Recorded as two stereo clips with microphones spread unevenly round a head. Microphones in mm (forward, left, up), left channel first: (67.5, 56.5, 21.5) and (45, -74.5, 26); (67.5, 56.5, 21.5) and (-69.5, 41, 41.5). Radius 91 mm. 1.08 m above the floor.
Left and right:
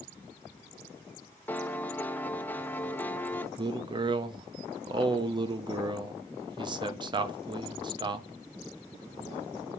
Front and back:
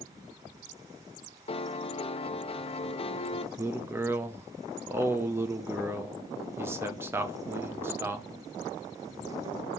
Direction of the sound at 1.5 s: 10° left.